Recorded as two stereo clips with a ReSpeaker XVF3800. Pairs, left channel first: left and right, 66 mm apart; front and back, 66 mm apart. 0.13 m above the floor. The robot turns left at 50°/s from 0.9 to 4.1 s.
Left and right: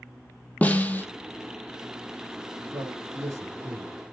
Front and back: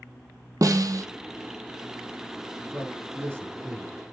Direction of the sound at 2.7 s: 90° right.